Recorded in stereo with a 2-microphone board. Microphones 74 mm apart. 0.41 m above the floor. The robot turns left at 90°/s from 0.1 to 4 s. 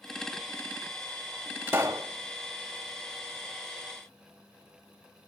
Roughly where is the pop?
Ahead right.